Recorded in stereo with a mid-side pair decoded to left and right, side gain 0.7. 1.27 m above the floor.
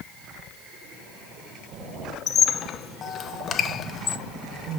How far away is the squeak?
About 0.8 m.